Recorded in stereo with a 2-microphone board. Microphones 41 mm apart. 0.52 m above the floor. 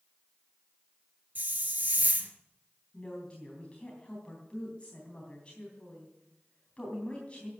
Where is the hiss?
45° right (ahead or behind), 1.9 m.